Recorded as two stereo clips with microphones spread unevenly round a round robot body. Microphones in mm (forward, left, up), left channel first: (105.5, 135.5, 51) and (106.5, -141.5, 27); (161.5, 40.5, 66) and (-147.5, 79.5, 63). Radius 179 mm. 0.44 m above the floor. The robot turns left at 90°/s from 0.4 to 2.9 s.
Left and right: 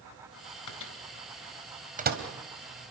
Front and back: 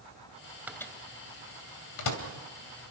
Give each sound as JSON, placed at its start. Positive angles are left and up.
{"t": 0.7, "sound": "a microwave", "azimuth_deg": 90, "distance_m": 2.5}